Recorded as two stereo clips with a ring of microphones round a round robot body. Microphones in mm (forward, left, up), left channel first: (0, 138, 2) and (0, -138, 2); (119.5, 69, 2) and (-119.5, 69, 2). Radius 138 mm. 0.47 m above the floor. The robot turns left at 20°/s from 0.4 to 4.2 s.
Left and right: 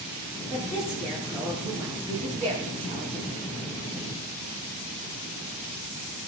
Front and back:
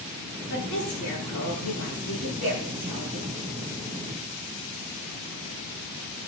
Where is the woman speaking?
25° left, 9 m; by 3.3 s 30° right, 9 m.